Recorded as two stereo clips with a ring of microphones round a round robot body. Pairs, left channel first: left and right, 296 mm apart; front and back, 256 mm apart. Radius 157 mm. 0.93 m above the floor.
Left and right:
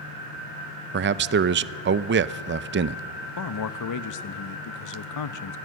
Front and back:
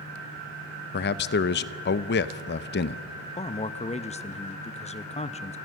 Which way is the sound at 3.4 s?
65° left.